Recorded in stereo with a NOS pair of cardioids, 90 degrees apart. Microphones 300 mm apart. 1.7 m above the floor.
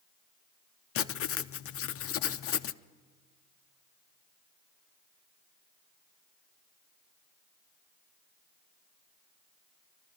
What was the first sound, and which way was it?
Writing, 50° left.